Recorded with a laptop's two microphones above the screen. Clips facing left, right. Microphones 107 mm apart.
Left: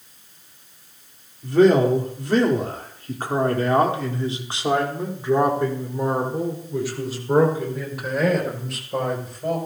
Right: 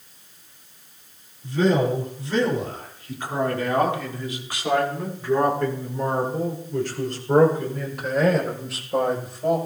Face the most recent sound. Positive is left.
turn(degrees=-5)  # may be behind; listen again after turning